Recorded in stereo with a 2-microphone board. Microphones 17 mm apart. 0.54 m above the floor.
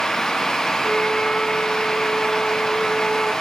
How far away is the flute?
About 9.5 m.